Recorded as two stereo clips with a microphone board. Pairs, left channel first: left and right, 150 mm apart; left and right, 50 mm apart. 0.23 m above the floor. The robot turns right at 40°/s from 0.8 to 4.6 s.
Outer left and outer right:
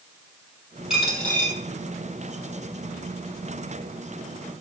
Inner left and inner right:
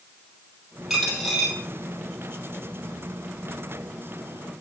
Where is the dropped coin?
5° right (ahead or behind), 3 m; by 1.5 s 20° left (ahead or behind), 3 m.